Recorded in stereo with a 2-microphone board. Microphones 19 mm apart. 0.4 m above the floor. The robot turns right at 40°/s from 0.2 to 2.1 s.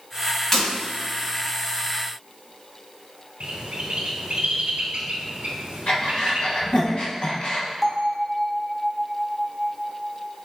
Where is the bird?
60° right (ahead or behind), 0.8 m.